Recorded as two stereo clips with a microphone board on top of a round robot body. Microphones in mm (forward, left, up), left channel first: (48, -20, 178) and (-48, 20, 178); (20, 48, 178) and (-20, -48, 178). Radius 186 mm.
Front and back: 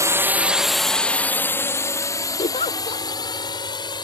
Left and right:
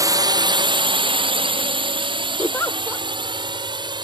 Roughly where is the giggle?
Ahead.